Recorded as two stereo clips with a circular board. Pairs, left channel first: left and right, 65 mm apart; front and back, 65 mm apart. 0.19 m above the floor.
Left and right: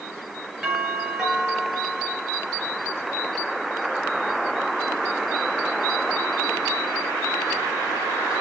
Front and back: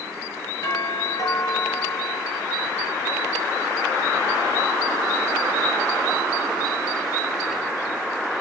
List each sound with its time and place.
0.6 s a doorbell: 10° right, 4.5 m